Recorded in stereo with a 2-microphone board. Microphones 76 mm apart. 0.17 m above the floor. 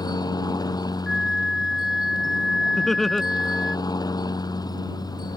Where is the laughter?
5° left (ahead or behind).